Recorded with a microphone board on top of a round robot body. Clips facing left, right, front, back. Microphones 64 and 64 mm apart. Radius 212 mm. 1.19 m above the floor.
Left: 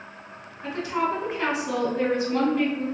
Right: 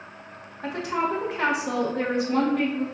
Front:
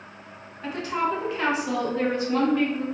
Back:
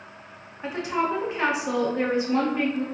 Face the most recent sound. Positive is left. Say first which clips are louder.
# even, back 1 dB
turn(degrees=-110)